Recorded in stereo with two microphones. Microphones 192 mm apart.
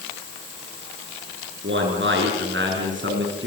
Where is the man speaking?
70° right (ahead or behind), 9 m; by 3.5 s 65° right (ahead or behind), 6.5 m.